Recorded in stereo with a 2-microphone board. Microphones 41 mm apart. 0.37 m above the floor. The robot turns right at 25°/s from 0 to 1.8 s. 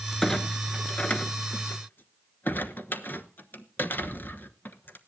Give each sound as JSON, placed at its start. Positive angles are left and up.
{"t": 0.2, "sound": "a clunk", "side_deg": 10, "distance_m": 1.1}